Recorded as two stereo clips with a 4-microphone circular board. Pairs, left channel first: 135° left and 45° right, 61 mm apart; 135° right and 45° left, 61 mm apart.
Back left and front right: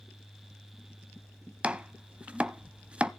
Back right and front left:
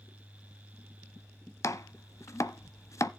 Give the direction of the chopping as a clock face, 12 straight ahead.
4 o'clock.